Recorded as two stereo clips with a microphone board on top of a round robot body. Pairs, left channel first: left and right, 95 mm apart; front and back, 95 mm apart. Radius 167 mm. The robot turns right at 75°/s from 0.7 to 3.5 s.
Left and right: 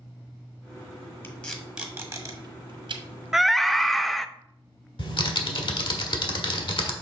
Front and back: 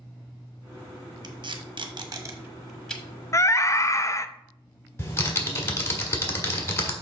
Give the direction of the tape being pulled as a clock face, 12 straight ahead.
7 o'clock.